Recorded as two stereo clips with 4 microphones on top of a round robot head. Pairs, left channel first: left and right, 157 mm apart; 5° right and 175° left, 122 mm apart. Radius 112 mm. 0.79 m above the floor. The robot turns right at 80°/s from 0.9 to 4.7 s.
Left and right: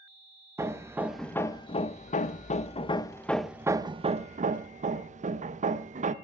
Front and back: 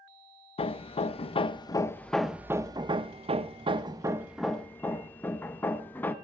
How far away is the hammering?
About 1.0 m.